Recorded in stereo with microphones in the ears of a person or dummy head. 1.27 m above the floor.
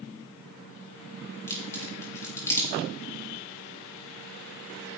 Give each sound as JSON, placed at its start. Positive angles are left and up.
{"t": 1.5, "sound": "a crack", "side_deg": 20, "distance_m": 3.0}